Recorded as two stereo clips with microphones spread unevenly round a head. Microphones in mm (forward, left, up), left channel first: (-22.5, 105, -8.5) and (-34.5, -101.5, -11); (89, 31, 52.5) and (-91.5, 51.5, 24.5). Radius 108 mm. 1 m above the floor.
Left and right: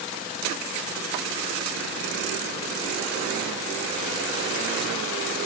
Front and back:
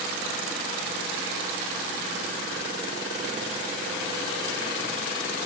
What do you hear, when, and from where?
Only background noise.